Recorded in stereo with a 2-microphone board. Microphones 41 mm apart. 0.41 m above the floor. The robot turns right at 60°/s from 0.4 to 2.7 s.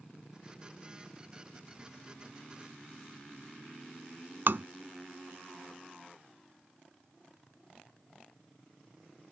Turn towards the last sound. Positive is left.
turn(degrees=-65)  # may be behind; listen again after turning